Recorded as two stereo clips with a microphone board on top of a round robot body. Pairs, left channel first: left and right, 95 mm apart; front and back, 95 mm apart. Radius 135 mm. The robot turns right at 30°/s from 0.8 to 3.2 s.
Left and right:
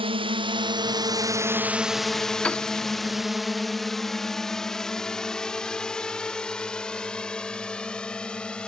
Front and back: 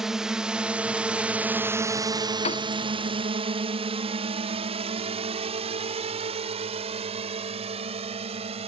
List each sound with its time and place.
0.0 s a drone: 95° right; by 8.7 s 170° left
2.4 s a piano: 10° left; by 2.7 s 15° left